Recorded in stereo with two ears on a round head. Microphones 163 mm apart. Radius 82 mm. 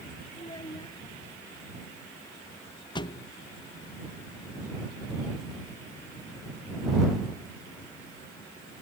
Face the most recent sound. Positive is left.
turn(degrees=25)  # may be behind; listen again after turning